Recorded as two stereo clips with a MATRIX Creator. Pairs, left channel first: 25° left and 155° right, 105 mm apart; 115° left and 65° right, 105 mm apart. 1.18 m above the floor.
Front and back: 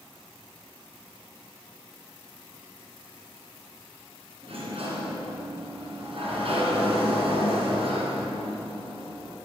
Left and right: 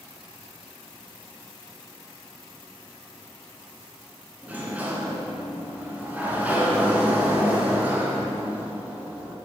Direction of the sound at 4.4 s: 140° right.